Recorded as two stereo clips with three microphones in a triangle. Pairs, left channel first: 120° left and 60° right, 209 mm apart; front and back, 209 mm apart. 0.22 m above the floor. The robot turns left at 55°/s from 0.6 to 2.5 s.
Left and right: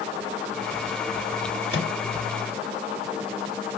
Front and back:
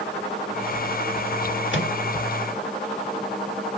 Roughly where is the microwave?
Ahead.